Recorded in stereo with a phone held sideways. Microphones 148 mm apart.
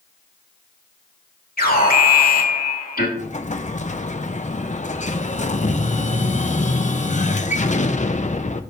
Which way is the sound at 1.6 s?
75° left (ahead or behind).